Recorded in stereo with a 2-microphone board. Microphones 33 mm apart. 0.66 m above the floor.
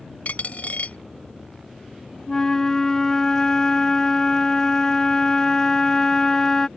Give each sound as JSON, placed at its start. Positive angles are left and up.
{"t": 0.2, "sound": "a dropped coin", "side_deg": 55}
{"t": 2.3, "sound": "a flute", "side_deg": 15}